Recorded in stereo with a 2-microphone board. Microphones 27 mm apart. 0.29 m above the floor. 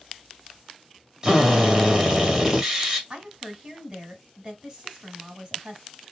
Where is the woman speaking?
25° right (ahead or behind), 2 m.